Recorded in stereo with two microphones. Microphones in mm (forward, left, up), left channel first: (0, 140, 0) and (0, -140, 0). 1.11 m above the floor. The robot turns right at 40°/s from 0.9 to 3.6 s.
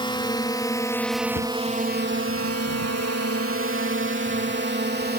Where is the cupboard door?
50° left (ahead or behind); by 1.6 s 55° left (ahead or behind).